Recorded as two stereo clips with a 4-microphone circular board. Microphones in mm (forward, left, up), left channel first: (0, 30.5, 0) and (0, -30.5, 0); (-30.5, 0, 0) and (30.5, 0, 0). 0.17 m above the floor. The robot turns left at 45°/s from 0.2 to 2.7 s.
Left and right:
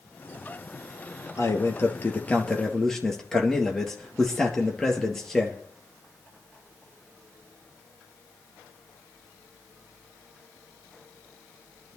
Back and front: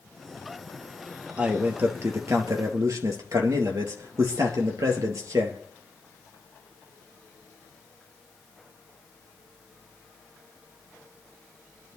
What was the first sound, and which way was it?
A man speaking, 70° left.